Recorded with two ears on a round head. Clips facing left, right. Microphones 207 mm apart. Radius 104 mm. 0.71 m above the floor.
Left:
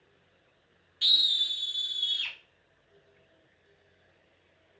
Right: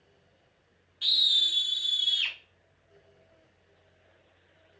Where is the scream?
30° left (ahead or behind), 0.6 m; by 2.4 s 40° right (ahead or behind), 2.0 m.